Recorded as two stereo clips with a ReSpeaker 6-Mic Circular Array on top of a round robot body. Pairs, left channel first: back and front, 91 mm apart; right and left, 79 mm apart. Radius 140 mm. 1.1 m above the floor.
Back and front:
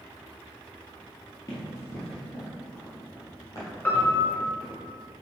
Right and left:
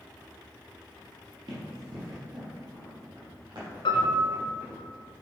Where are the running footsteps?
120° left, 1.6 m.